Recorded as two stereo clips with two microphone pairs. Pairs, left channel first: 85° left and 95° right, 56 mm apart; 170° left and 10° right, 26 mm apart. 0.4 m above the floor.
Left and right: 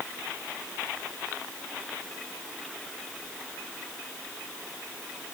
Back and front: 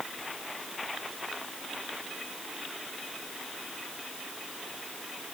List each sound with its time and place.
Only background noise.